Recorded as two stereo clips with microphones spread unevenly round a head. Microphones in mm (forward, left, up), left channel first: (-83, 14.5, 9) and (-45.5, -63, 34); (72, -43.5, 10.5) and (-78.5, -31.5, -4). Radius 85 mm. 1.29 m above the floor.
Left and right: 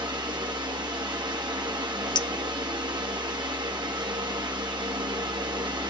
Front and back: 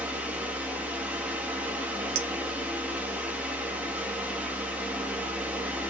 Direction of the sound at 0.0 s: 105° right.